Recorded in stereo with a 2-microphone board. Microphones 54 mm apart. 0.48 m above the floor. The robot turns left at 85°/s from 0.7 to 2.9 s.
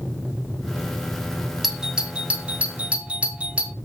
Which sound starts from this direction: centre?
A doorbell, at 1.6 s.